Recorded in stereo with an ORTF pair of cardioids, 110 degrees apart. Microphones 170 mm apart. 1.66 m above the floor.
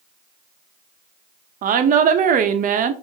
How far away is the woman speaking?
About 0.8 m.